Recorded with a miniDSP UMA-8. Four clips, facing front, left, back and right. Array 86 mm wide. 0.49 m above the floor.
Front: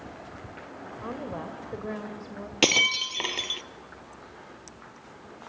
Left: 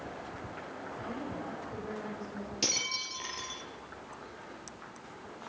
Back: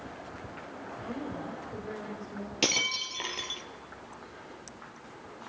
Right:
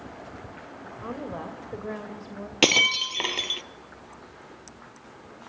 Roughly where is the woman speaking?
Ahead right.